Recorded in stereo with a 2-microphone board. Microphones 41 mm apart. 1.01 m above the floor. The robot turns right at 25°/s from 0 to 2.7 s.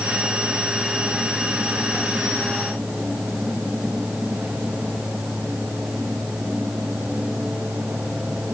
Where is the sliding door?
No sliding door in this recording.